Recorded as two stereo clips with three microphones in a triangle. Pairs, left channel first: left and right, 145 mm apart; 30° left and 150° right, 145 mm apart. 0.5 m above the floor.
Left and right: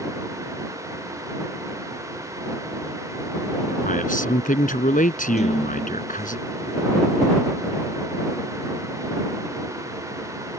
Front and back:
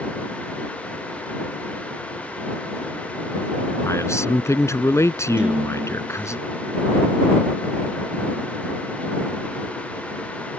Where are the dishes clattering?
125° left.